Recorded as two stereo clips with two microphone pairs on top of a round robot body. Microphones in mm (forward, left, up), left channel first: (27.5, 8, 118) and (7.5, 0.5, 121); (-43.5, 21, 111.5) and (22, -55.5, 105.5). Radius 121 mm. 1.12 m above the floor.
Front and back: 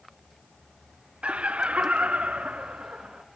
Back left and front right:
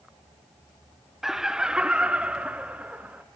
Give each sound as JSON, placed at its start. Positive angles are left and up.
{"t": 1.2, "sound": "laughter", "azimuth_deg": -135, "distance_m": 0.8}